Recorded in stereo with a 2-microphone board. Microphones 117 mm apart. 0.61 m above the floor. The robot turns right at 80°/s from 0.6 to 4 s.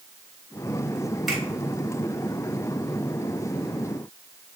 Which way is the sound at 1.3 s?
Centre (ahead or behind).